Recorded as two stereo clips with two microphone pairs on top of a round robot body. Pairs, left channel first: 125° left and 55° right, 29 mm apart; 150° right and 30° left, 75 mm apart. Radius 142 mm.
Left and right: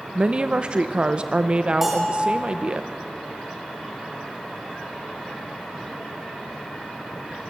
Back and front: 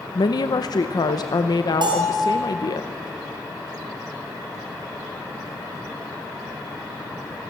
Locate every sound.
0.1 s a woman speaking: 115° right, 0.7 m
1.8 s a bell: 25° left, 4.5 m